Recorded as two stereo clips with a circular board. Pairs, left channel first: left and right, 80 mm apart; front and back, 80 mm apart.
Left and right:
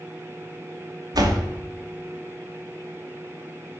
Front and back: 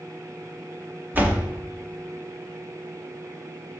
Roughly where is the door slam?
Behind right.